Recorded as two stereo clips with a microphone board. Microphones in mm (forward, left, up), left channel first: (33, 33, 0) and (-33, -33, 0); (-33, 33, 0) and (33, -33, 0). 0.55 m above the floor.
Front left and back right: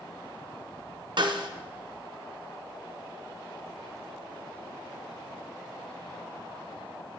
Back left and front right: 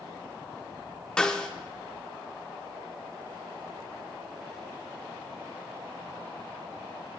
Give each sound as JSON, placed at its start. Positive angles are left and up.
{"t": 1.2, "sound": "a snare drum", "azimuth_deg": -145, "distance_m": 0.5}